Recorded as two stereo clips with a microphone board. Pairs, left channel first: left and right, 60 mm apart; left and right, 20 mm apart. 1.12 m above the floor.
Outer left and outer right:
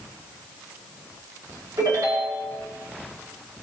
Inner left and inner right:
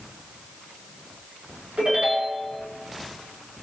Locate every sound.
1.8 s a ringtone: 90° right, 7.5 m